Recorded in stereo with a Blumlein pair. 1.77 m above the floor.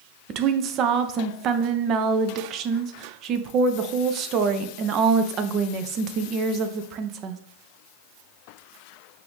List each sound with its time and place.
0.3 s a woman speaking: 35° right, 0.5 m